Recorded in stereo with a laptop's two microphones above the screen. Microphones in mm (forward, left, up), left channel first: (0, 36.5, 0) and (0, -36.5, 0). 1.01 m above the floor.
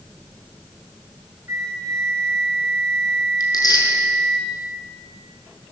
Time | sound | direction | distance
1.5 | a flute | 45° right (ahead or behind) | 2.5 m
3.4 | tearing paper | 65° left (ahead or behind) | 6 m